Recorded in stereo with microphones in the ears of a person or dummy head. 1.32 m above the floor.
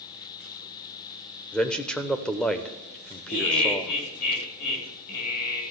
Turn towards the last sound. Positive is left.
turn(degrees=55)  # may be behind; listen again after turning